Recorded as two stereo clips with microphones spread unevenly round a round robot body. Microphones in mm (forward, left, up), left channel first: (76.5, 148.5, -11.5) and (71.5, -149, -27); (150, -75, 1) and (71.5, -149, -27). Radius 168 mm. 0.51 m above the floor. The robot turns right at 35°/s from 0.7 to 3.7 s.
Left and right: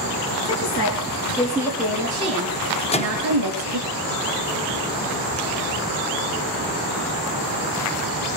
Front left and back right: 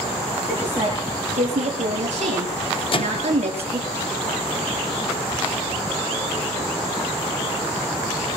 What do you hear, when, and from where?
0.5 s a woman speaking: 140° left, 8.5 m; by 3.9 s 115° right, 8.5 m
2.9 s a microwave: 30° left, 1.1 m; by 3.3 s 40° left, 1.1 m